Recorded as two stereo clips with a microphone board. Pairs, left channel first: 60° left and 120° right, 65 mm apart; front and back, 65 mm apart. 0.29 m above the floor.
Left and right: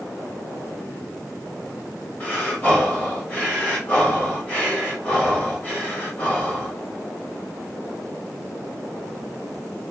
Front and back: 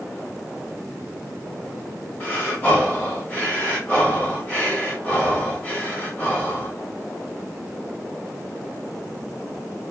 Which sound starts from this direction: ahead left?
Breathing, at 2.2 s.